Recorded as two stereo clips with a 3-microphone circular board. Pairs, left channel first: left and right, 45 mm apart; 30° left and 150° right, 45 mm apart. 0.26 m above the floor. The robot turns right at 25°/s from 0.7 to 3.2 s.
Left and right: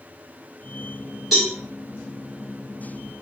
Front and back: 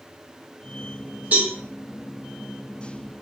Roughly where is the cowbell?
Behind.